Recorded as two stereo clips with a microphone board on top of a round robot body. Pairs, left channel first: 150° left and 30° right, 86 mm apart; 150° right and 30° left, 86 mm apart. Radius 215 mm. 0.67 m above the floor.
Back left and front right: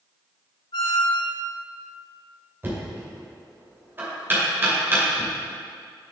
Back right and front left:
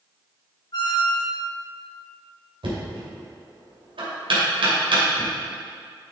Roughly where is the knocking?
Ahead left.